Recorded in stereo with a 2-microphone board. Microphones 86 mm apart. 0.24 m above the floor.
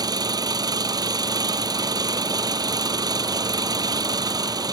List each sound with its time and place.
0.0 s an engine running: 50° right (ahead or behind)